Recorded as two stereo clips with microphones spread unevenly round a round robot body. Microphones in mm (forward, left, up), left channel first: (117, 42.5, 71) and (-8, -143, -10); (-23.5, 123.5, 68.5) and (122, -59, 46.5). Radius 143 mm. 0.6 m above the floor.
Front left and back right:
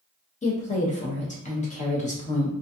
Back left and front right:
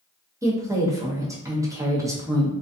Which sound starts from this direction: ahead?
A woman speaking, at 0.4 s.